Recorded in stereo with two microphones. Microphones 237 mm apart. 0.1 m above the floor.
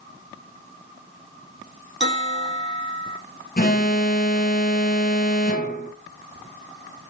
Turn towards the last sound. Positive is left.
turn(degrees=40)  # may be behind; listen again after turning